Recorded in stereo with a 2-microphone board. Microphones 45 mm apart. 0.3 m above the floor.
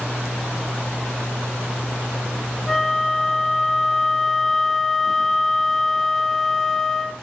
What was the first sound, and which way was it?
A flute, 5° left (ahead or behind).